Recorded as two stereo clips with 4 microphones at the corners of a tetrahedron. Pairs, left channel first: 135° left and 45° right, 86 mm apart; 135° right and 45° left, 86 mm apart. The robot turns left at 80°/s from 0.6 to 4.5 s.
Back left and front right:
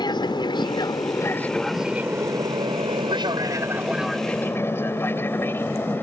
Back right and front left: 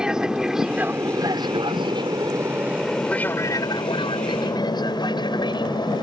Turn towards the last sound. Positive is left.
turn(degrees=-160)